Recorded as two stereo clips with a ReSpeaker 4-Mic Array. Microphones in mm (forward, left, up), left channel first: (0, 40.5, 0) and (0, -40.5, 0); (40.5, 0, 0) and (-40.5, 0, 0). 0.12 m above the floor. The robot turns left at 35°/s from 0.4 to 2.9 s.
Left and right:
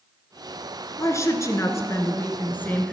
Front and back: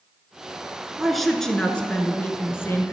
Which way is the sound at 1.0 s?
95° left.